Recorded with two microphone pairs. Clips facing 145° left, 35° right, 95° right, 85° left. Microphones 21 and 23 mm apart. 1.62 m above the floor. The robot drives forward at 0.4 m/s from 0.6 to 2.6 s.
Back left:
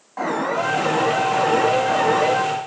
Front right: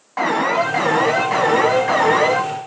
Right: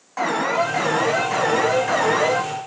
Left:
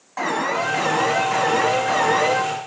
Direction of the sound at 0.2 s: 15° right.